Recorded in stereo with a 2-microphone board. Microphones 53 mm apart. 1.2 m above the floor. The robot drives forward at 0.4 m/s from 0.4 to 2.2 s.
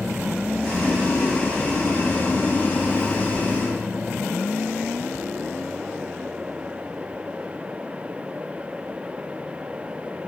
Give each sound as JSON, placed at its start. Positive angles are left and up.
{"t": 0.6, "sound": "boiling", "side_deg": 20, "distance_m": 1.0}